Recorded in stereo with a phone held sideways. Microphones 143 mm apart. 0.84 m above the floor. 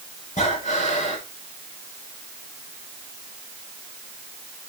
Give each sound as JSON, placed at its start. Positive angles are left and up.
{"t": 0.4, "sound": "breathing", "side_deg": 55, "distance_m": 6.0}